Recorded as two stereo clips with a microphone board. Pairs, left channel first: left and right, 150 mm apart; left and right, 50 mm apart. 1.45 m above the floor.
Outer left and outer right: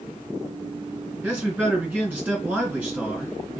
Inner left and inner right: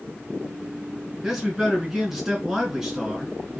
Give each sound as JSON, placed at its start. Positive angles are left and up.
{"t": 1.2, "sound": "a man speaking", "side_deg": -10, "distance_m": 1.3}